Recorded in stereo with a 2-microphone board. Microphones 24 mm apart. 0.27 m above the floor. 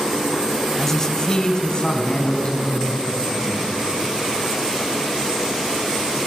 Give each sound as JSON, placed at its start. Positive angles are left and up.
{"t": 0.8, "sound": "a man speaking", "side_deg": 15, "distance_m": 1.0}